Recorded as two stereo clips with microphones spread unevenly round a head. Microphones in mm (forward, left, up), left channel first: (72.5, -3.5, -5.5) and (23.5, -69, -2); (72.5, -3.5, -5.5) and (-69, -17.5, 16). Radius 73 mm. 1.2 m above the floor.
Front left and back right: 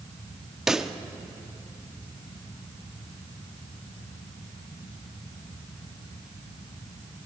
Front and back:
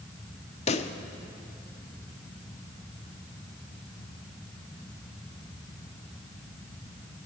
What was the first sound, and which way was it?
A pop, 45° right.